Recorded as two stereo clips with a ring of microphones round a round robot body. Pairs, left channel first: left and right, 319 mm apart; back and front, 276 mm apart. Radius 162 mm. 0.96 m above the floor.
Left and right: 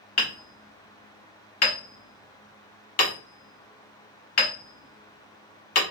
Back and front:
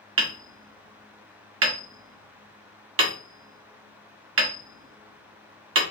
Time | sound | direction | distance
0.2 | hammering | 40° left | 1.2 m